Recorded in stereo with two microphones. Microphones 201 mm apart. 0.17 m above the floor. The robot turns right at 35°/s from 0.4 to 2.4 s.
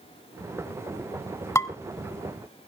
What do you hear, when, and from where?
1.6 s dishes clattering: 15° left (ahead or behind), 0.7 m